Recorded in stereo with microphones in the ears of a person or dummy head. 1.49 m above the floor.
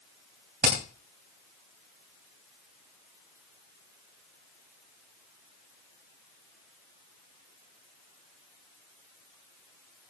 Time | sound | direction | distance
0.6 | hammering | 50° right (ahead or behind) | 3 m